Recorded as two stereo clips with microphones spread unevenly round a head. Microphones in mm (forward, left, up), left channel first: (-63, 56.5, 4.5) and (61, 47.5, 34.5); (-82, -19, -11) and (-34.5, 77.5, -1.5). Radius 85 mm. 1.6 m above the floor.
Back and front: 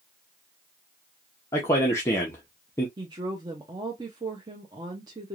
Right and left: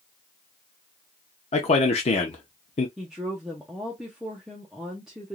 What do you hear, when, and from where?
1.5 s a man speaking: 100° right, 0.7 m
3.0 s a woman speaking: 15° right, 0.6 m